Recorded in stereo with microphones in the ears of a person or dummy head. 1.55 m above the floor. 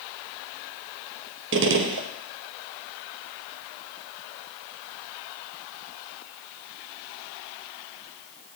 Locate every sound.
1.5 s a gunshot: 65° right (ahead or behind), 0.6 m